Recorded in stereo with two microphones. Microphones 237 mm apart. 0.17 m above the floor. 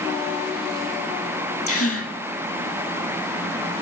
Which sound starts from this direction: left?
A gasp, at 1.7 s.